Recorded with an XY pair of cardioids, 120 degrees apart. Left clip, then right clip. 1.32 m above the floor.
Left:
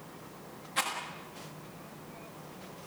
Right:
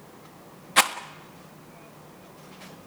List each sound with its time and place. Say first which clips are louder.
0.8 s a rattle: right 11 dB; 70° right, 1.3 m